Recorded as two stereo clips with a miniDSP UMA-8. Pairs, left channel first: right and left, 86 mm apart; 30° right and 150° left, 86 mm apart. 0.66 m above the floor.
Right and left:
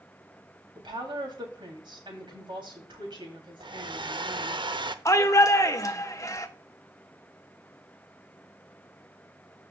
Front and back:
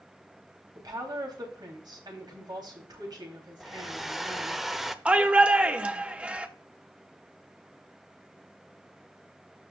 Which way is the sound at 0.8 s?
115° left.